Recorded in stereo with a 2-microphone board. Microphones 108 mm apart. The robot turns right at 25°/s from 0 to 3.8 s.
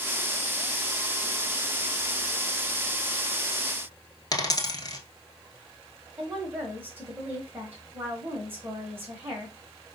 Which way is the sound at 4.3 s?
40° left (ahead or behind).